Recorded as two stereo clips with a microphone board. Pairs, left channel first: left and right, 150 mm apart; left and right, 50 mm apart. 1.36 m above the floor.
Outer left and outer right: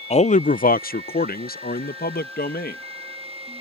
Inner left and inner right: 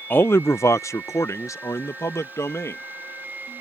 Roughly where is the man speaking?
Left.